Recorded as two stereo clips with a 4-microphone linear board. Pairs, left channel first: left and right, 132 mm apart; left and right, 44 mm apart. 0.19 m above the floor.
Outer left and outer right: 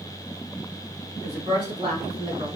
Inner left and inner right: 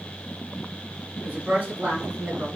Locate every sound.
1.2 s a woman speaking: 40° right (ahead or behind), 1.6 m; by 2.5 s 35° right (ahead or behind), 1.5 m